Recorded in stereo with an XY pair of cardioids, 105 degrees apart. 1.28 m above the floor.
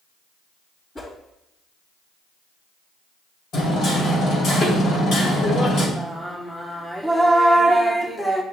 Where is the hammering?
65° left, 2.5 m.